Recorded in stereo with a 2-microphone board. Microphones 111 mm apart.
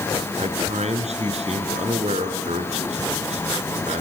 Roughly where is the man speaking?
Right.